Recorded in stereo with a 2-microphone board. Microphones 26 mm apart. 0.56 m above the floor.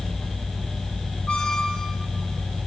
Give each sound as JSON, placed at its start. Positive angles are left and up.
{"t": 1.3, "sound": "a squeak", "side_deg": 30, "distance_m": 3.5}